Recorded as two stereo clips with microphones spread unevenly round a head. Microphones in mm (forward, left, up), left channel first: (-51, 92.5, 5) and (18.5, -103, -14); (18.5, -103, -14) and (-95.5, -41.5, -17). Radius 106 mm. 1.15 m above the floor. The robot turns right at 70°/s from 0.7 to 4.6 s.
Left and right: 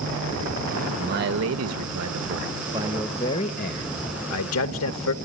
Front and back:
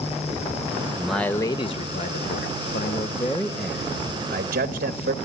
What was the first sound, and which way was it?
A man speaking, 125° right.